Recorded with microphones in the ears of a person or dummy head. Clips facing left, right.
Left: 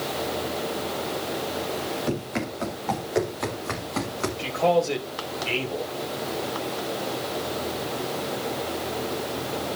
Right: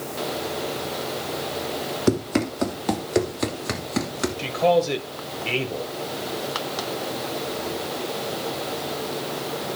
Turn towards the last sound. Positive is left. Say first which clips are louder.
# right 2 dB
turn(degrees=-20)  # may be behind; listen again after turning